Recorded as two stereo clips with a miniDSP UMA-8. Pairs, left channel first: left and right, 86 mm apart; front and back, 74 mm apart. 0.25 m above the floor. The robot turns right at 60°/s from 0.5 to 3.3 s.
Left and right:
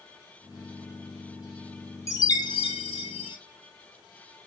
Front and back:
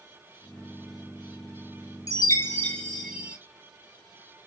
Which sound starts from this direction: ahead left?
A chime, at 2.1 s.